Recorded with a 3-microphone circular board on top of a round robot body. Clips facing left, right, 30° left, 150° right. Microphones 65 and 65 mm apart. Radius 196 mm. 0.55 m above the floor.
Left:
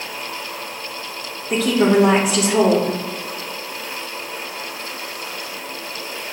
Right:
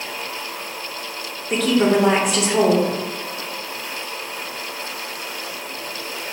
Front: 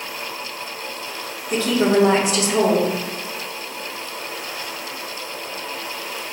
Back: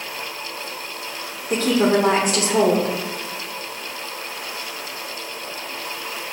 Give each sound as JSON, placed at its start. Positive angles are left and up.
{"t": 1.5, "sound": "a woman speaking", "azimuth_deg": 180, "distance_m": 1.1}